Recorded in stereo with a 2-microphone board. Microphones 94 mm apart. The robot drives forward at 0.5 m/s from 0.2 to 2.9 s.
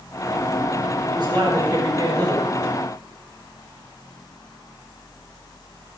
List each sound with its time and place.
1.1 s a man speaking: 50° right (ahead or behind), 3 m; by 2.7 s 40° right (ahead or behind), 3.5 m